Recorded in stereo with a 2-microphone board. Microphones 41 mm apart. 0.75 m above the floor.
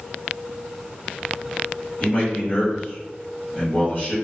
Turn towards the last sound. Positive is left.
turn(degrees=35)  # may be behind; listen again after turning